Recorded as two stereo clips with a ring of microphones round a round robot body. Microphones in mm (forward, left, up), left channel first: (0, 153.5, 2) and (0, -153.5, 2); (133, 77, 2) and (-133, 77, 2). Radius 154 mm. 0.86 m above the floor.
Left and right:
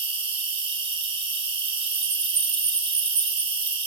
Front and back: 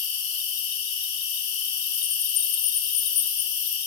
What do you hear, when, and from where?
0.0 s an insect: 15° right, 1.0 m